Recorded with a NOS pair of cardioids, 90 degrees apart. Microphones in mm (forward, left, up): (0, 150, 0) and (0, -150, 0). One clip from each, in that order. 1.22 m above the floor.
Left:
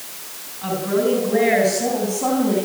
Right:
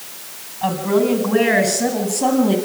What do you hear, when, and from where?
0.6 s a woman speaking: 55° right, 8 m; by 2.5 s 50° right, 10 m